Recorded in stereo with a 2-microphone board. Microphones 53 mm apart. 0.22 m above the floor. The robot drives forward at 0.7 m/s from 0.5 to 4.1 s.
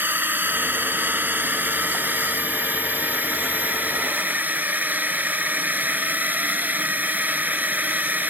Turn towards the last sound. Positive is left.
turn(degrees=-30)  # may be behind; listen again after turning